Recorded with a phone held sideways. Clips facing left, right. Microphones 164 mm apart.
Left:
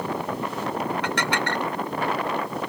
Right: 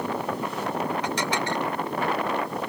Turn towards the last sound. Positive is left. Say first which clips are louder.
# left 1 dB
turn(degrees=65)  # may be behind; listen again after turning